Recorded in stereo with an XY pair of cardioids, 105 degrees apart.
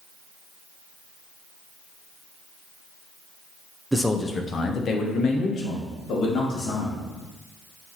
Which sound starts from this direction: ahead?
A man speaking, at 3.9 s.